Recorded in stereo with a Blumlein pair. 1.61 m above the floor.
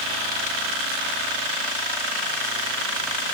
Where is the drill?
I don't hear a drill.